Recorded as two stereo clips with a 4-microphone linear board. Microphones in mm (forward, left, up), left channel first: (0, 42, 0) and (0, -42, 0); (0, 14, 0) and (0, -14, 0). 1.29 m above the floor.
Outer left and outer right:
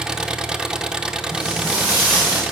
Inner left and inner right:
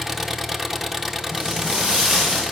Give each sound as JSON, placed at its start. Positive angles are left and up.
{"t": 0.0, "sound": "an engine running", "side_deg": -10, "distance_m": 0.7}
{"t": 1.3, "sound": "footsteps", "side_deg": -30, "distance_m": 7.5}